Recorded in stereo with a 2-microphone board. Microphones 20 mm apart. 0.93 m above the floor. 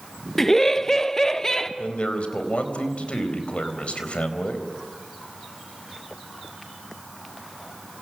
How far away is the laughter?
About 0.7 m.